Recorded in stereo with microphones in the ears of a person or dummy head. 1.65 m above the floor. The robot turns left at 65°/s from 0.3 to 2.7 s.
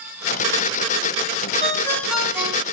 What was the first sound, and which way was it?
A ringtone, 35° left.